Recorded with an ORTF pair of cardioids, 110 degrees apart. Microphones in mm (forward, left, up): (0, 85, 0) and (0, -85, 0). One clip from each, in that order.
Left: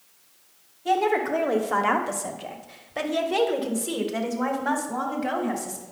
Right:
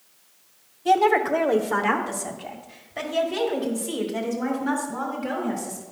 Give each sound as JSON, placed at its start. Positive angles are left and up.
{"t": 0.8, "sound": "a woman speaking", "azimuth_deg": -15, "distance_m": 1.2}